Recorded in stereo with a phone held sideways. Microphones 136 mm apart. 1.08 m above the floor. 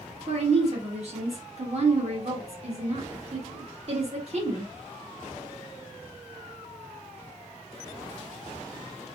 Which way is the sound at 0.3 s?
50° right (ahead or behind).